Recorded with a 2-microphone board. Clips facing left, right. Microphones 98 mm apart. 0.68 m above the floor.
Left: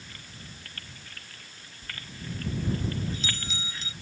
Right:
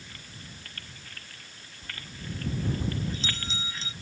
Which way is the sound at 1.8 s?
30° right (ahead or behind).